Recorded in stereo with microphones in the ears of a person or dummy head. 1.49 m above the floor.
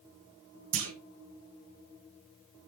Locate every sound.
0.7 s a clunk: 70° right (ahead or behind), 1.4 m